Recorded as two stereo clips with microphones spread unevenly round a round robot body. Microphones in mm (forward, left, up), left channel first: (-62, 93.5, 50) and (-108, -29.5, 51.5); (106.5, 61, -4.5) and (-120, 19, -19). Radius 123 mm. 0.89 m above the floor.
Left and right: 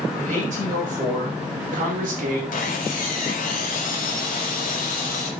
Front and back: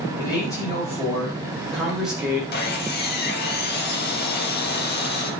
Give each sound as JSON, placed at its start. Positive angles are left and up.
{"t": 0.2, "sound": "a man speaking", "azimuth_deg": -65, "distance_m": 5.5}
{"t": 2.5, "sound": "sawing", "azimuth_deg": 55, "distance_m": 1.8}